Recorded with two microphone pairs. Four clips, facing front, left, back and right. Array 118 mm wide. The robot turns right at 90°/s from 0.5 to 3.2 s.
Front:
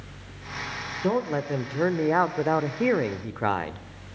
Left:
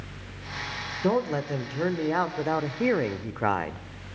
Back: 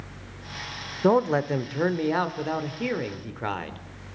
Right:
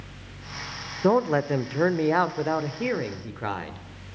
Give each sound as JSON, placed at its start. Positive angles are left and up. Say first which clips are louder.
{"t": 1.0, "sound": "a man speaking", "louder": "right 4 dB, back 5 dB", "azimuth_deg": -145, "distance_m": 0.9}